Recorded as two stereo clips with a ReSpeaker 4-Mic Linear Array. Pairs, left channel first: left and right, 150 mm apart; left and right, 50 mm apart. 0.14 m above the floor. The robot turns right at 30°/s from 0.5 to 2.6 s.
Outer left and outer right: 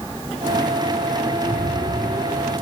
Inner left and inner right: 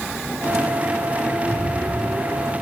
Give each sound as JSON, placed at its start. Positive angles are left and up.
{"t": 1.4, "sound": "a rattle", "azimuth_deg": -125, "distance_m": 6.0}